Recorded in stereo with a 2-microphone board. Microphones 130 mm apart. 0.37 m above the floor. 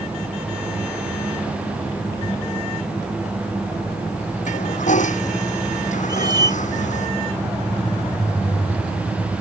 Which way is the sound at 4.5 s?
70° left (ahead or behind).